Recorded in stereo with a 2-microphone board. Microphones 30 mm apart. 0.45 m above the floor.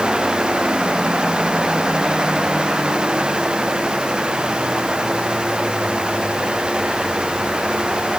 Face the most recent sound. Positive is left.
No sound to turn to.